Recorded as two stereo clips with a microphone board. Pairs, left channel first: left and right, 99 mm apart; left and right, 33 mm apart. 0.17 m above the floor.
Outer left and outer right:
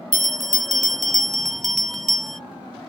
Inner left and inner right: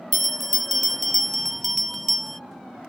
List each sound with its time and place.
0.1 s a bell: 5° left (ahead or behind)